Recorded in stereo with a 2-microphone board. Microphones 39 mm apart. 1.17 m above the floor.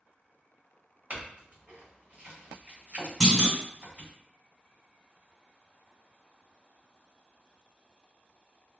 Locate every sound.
1.1 s a clink: 40° right (ahead or behind), 1.6 m
3.2 s a clunk: 10° right (ahead or behind), 1.7 m